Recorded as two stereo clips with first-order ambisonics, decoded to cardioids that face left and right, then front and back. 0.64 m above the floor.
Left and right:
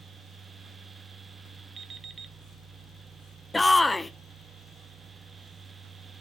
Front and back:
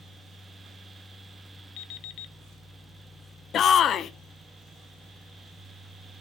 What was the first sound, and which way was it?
An alarm clock, 25° right.